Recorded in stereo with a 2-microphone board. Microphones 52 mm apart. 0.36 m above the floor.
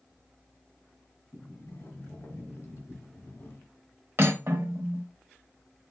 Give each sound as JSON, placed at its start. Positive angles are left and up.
{"t": 1.3, "sound": "a sliding door", "side_deg": 60, "distance_m": 1.2}
{"t": 4.2, "sound": "cutlery clinking", "side_deg": -50, "distance_m": 0.8}